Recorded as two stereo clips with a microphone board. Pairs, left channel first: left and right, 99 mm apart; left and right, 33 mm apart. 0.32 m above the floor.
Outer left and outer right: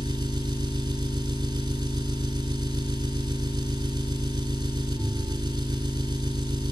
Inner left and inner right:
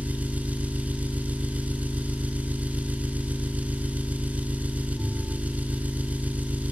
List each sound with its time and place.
0.0 s an engine running: 45° right (ahead or behind), 3 m